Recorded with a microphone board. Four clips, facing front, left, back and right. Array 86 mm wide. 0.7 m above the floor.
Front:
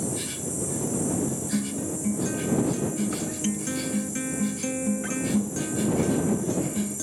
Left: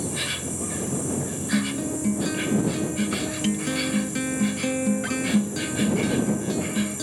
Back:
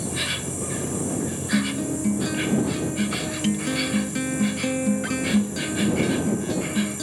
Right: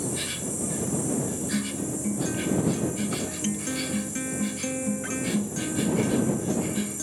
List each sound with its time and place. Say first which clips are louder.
0.0 s an insect: left 1 dB, back 2 dB; 150° left
1.5 s a guitar: left 4 dB, back 4 dB; 130° left